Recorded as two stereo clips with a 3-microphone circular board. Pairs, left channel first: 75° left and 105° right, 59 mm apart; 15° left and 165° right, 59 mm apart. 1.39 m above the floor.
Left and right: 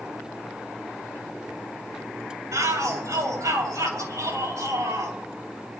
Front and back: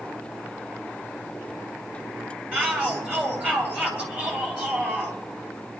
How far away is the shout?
About 6 m.